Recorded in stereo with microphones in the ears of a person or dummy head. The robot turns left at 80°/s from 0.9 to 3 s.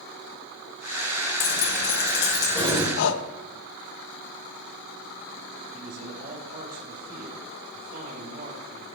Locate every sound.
1.4 s keys jangling: 110° left, 4 m; by 2.9 s 5° right, 4 m
3.0 s breathing: 75° left (ahead or behind), 1.0 m
5.7 s a man speaking: 40° right (ahead or behind), 5 m